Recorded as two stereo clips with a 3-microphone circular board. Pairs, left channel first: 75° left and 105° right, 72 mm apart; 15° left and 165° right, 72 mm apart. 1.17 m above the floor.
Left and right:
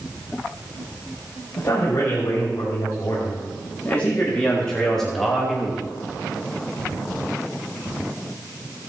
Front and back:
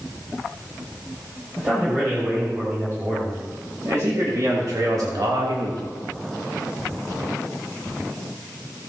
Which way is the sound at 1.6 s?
135° left.